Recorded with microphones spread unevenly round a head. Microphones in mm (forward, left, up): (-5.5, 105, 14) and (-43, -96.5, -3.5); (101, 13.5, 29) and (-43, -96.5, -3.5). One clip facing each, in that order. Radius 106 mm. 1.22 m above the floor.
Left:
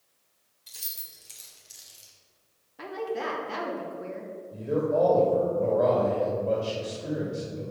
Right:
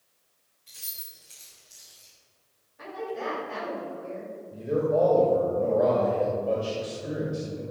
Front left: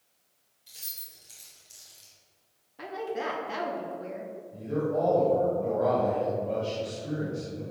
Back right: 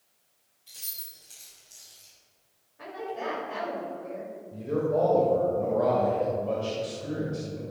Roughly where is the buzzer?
I don't hear a buzzer.